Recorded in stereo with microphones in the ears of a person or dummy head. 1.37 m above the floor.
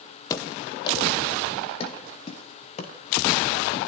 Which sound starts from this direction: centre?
Running footsteps, at 0.3 s.